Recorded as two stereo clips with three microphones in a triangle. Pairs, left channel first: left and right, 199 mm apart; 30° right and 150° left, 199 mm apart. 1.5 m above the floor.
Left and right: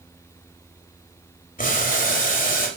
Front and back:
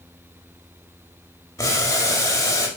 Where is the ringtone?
No ringtone in this recording.